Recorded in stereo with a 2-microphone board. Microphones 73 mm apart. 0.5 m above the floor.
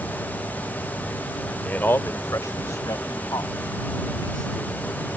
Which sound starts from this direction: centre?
A man speaking, at 1.6 s.